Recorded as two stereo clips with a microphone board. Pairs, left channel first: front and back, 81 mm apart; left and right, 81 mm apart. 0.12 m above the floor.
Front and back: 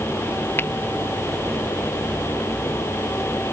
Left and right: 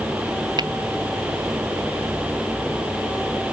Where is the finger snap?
60° right.